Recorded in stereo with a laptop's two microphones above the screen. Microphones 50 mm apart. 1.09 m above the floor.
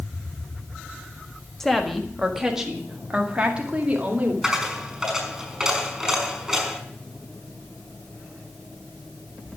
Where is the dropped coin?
10° right (ahead or behind), 5 m.